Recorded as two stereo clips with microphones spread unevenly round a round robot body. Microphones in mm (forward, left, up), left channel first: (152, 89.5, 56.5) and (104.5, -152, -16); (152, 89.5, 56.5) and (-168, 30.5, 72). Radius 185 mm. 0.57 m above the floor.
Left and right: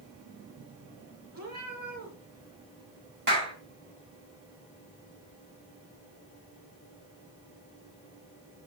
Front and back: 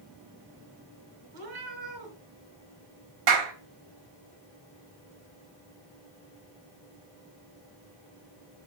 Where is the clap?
160° right, 2.5 m.